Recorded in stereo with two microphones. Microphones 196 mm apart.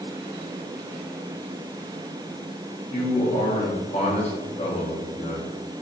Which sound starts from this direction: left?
A man speaking, at 2.9 s.